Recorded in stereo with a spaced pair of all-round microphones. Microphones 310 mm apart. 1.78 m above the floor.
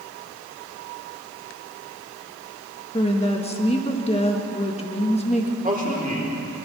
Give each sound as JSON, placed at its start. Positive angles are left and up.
{"t": 2.9, "sound": "a woman speaking", "side_deg": 20, "distance_m": 2.0}
{"t": 5.6, "sound": "a man speaking", "side_deg": -25, "distance_m": 4.5}